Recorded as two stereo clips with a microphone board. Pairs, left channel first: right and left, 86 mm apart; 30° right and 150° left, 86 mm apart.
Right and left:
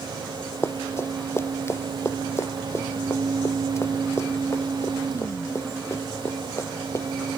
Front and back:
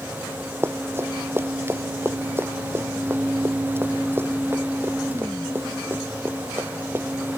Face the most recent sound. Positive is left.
turn(degrees=-145)